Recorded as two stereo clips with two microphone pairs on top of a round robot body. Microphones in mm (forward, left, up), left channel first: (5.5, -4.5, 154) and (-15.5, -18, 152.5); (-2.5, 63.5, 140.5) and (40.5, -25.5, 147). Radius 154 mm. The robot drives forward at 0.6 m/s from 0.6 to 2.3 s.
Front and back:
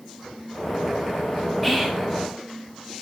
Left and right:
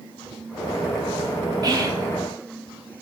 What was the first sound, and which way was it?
Whispering, 55° right.